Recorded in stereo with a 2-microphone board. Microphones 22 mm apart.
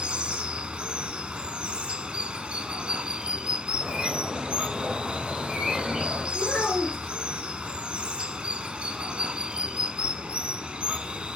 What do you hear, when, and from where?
0.0 s running water: 60° right (ahead or behind), 0.9 m
3.8 s a bird: 40° right (ahead or behind), 6 m
6.3 s a child speaking: 70° left (ahead or behind), 3 m